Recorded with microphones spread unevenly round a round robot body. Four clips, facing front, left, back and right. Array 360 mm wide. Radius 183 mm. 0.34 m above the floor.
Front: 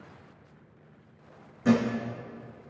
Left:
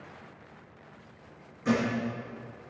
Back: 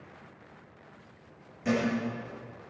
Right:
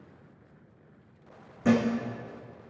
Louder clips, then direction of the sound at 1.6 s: Right 3 dB, front 5 dB; 75° right.